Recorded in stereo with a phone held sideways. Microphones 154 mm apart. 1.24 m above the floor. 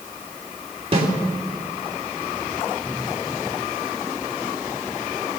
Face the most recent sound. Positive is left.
turn(degrees=-40)  # may be behind; listen again after turning